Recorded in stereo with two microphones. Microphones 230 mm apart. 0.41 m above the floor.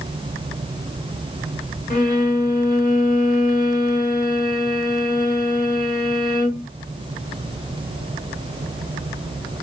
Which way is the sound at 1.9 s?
35° left (ahead or behind).